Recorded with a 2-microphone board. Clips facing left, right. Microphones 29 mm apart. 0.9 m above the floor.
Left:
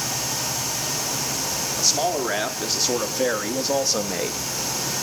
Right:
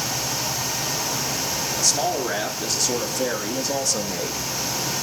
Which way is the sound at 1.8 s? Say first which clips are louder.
Left 1 dB; 15° left (ahead or behind).